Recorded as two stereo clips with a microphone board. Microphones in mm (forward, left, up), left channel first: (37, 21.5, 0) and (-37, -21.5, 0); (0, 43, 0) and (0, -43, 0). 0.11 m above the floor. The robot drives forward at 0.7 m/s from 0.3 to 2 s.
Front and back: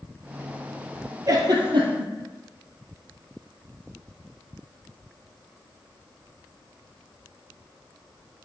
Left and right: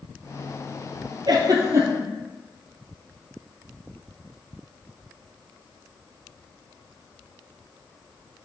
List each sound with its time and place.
1.3 s a giggle: 110° right, 0.5 m; by 2.1 s 145° right, 0.8 m